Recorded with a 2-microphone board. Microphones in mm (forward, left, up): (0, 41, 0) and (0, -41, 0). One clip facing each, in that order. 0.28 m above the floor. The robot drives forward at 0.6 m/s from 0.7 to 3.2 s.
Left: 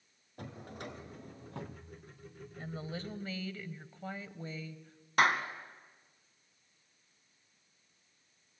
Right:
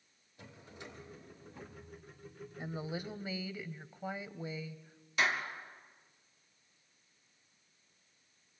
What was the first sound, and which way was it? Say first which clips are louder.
A drawer: left 6 dB; 55° left (ahead or behind).